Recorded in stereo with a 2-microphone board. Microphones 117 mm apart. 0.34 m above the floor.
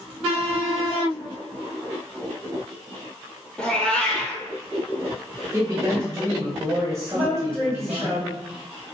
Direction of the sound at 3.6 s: 10° left (ahead or behind).